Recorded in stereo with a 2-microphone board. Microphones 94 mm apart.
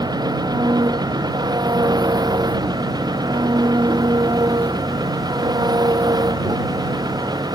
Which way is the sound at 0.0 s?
45° right (ahead or behind).